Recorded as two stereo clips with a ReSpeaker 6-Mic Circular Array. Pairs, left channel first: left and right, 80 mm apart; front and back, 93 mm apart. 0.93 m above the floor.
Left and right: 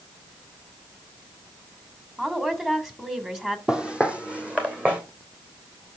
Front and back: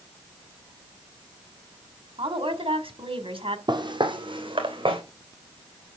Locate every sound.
2.2 s a woman speaking: 170° right, 3 m
3.7 s footsteps: 165° right, 1.6 m; by 5.0 s 160° right, 3.5 m